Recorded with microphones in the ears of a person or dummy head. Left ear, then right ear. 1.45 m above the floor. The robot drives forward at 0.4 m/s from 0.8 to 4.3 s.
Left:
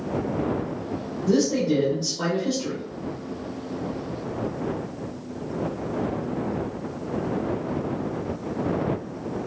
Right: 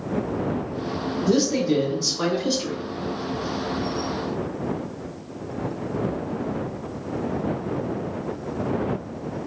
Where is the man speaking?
15° right (ahead or behind), 1.3 m; by 2.8 s 30° right (ahead or behind), 0.8 m.